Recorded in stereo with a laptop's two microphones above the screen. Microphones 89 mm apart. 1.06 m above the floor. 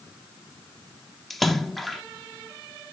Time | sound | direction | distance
1.3 | a splash | centre (ahead or behind) | 0.6 m